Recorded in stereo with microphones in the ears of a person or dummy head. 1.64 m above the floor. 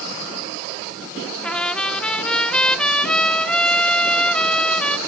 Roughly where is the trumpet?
Centre.